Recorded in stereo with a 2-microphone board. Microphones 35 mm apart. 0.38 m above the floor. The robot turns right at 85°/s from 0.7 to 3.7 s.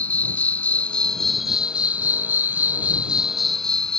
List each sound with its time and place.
0.0 s an insect: 125° left; by 4.0 s 20° left